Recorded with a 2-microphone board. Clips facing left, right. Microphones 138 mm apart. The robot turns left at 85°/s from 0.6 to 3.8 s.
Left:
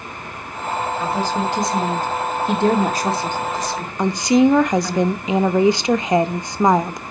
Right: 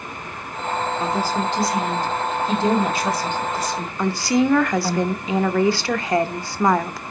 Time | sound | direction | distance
1.0 | a woman speaking | 30° right (ahead or behind) | 2 m
4.0 | a woman speaking | 20° left (ahead or behind) | 0.7 m